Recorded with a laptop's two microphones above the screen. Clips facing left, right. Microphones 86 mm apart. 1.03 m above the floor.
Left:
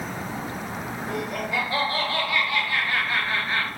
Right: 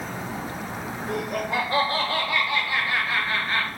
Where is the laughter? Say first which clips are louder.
Right 2 dB; 50° right (ahead or behind), 1.1 m; by 3.7 s 5° left (ahead or behind), 1.1 m.